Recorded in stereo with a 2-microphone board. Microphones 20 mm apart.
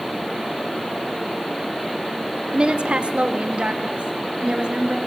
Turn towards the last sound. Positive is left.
turn(degrees=-65)  # may be behind; listen again after turning